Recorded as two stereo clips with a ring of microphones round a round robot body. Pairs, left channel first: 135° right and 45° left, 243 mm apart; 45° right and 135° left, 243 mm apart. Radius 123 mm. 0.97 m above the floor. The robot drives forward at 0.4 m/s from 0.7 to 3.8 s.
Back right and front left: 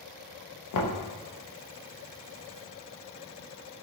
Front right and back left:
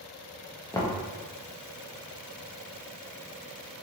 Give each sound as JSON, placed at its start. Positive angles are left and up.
{"t": 0.7, "sound": "knocking", "azimuth_deg": -125, "distance_m": 0.6}